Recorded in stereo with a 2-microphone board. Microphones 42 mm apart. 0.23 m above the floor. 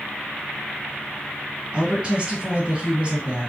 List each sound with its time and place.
1.7 s a woman speaking: 25° right (ahead or behind), 2.5 m